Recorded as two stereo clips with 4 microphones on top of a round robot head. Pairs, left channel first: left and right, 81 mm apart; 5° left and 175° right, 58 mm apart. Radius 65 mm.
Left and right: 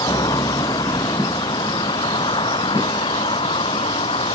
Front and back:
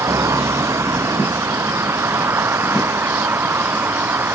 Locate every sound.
0.0 s a vehicle: 145° left; by 4.3 s 130° left